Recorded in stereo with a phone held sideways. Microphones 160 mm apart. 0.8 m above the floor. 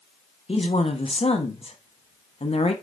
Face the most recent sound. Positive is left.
turn(degrees=40)  # may be behind; listen again after turning